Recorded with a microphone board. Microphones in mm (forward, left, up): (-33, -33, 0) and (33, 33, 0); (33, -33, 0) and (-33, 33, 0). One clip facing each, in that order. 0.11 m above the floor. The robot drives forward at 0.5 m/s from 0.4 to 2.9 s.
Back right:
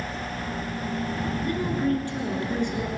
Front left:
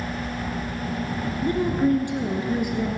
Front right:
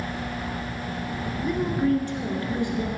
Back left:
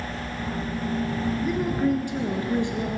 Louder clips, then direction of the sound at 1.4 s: Front left 6 dB, front right 2 dB; 45° left.